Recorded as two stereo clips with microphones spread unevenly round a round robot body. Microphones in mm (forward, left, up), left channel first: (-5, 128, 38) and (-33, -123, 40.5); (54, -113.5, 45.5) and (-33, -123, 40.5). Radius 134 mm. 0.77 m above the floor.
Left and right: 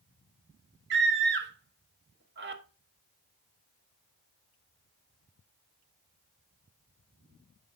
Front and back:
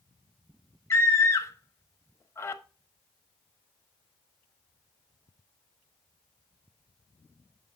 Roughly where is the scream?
Ahead right.